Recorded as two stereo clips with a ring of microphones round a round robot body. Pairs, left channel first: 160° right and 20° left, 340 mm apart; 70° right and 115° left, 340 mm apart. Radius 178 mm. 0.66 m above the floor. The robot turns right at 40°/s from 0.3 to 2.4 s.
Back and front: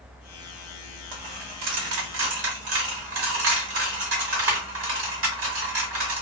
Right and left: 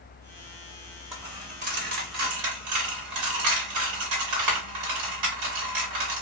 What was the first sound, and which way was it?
A dropped coin, 25° left.